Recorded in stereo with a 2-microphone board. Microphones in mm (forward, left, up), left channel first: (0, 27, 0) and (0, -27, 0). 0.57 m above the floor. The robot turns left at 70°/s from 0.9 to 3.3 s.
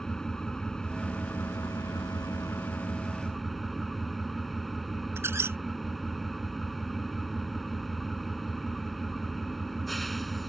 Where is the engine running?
170° left; by 10.5 s straight ahead.